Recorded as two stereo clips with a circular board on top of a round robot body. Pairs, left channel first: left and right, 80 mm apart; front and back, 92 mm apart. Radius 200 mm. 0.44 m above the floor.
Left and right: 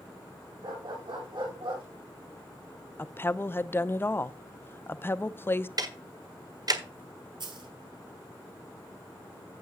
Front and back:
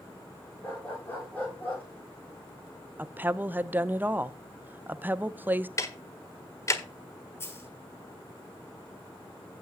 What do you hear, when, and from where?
0.6 s a dog barking: 70° right, 9.5 m; by 1.9 s 75° right, 9.5 m
3.0 s a woman speaking: 125° left, 0.9 m
5.8 s ticking: 55° right, 1.6 m
7.4 s a dropped coin: 65° right, 1.6 m